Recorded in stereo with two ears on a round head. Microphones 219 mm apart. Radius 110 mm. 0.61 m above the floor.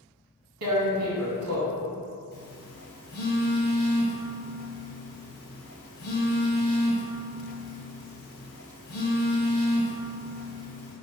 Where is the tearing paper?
65° right (ahead or behind), 0.9 m.